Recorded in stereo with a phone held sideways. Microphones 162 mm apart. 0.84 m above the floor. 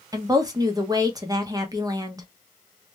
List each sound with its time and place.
0.1 s a woman speaking: 25° right (ahead or behind), 0.7 m